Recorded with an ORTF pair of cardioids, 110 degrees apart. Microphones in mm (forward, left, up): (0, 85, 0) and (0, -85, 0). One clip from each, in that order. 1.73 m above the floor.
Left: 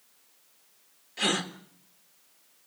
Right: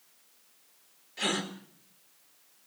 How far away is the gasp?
About 2 m.